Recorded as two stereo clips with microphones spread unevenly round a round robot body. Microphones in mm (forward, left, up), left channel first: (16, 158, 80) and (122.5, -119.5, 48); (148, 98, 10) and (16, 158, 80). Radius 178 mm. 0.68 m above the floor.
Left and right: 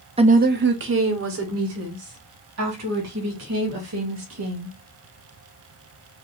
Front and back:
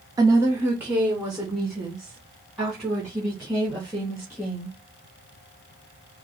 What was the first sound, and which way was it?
A woman speaking, 110° right.